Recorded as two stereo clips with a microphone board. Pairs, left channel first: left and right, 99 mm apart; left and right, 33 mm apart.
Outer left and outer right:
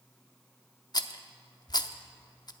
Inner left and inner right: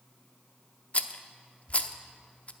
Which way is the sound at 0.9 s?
45° left (ahead or behind).